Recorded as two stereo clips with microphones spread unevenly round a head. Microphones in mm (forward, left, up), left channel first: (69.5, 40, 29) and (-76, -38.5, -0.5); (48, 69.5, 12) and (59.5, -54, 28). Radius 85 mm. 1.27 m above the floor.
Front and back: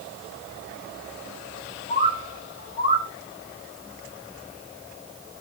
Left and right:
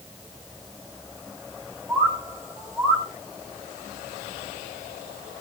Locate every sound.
1.9 s a bird: 10° right, 2.5 m